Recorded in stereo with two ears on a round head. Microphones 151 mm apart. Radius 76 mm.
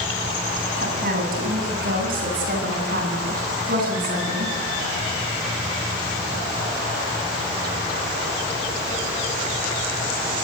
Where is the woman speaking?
50° right (ahead or behind), 9.5 m; by 4.5 s 55° right (ahead or behind), 14 m.